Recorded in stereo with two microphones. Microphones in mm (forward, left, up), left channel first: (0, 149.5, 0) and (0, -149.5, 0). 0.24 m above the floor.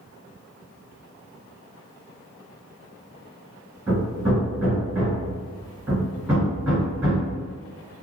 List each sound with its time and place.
3.9 s hammering: 5° right (ahead or behind), 1.9 m